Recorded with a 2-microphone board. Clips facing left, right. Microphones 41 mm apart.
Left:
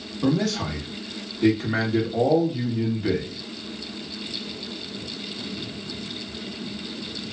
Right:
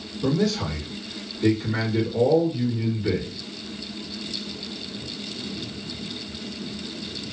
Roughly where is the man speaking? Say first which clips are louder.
Even; left.